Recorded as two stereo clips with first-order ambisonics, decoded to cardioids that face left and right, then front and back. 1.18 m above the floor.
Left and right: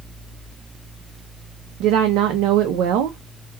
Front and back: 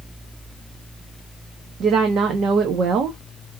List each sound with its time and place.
1.8 s a woman speaking: 125° right, 0.8 m